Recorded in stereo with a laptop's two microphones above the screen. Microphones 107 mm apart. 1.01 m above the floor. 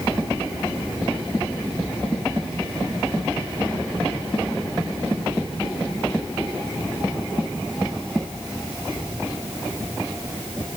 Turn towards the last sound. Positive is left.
No sound to turn to.